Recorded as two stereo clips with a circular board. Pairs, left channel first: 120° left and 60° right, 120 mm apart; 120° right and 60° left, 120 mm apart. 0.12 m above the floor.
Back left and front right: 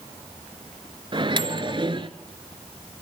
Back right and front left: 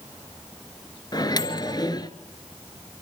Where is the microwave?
80° right, 1.2 m.